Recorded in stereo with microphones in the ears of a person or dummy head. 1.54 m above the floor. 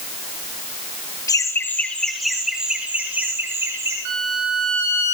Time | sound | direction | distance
1.3 | laughter | 15° left (ahead or behind) | 1.4 m
4.0 | a violin | 70° right (ahead or behind) | 7 m